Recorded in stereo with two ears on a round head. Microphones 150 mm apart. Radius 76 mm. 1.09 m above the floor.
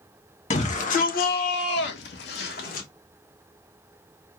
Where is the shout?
45° left (ahead or behind), 1.3 m; by 2.9 s 50° left (ahead or behind), 1.2 m.